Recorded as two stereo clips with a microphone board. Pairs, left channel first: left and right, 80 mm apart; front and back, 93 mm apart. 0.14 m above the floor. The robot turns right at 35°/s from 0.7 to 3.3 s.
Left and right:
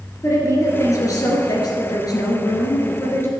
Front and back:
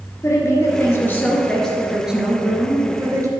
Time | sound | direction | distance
0.2 | a woman speaking | 50° left | 2 m